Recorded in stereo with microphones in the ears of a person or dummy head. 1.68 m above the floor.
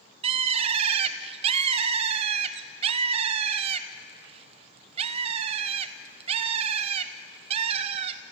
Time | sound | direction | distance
0.2 | a bird | 40° right (ahead or behind) | 0.8 m